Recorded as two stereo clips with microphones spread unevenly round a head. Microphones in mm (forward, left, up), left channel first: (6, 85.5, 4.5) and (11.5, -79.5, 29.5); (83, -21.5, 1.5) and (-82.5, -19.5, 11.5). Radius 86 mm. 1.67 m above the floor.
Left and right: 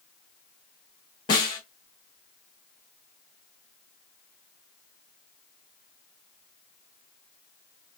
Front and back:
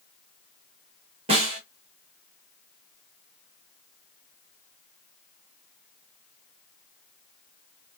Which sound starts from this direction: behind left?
A snare drum, at 1.3 s.